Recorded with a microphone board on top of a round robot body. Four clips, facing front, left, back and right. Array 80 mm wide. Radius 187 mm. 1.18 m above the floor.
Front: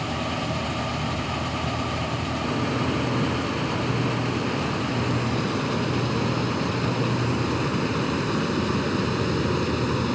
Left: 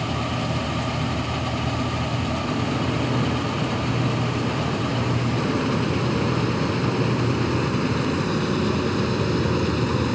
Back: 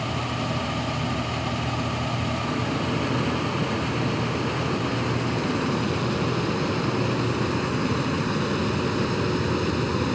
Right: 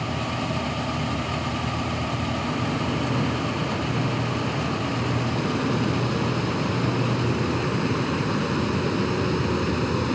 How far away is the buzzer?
No buzzer in this recording.